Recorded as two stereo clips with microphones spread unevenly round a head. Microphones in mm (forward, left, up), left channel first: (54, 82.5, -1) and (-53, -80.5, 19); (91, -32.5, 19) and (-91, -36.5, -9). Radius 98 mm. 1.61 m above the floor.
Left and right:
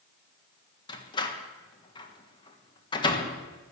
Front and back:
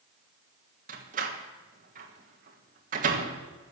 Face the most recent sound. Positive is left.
turn(degrees=125)